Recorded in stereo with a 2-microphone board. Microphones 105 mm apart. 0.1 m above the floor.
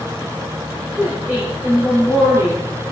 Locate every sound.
1.0 s a woman speaking: 15° right (ahead or behind), 8.5 m